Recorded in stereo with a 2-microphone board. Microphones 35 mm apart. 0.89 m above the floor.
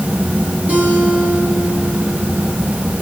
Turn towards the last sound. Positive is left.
turn(degrees=-50)  # may be behind; listen again after turning